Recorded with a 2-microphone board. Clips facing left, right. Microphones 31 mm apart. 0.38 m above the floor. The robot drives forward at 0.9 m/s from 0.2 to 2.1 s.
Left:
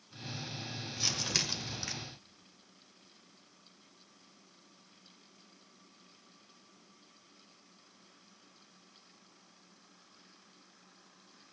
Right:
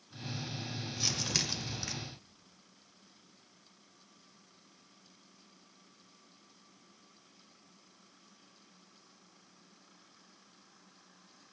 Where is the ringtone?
No ringtone in this recording.